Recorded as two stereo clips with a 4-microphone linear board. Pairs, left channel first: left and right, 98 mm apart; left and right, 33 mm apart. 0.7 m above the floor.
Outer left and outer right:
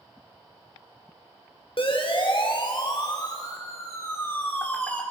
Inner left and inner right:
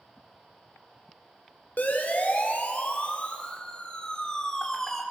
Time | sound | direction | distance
1.8 | a siren | 60° left (ahead or behind) | 3.5 m